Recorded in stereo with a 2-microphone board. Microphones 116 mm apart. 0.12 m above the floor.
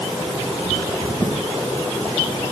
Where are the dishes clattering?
I don't hear dishes clattering.